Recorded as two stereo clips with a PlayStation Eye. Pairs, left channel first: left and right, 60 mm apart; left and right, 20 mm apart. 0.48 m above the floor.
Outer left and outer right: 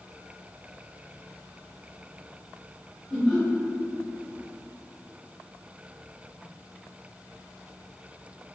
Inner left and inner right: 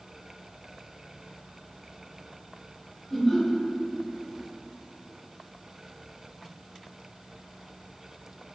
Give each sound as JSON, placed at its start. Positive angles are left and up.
{"t": 3.1, "sound": "laughter", "side_deg": -10, "distance_m": 1.4}